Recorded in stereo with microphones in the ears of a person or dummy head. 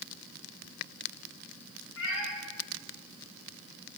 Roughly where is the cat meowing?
Left.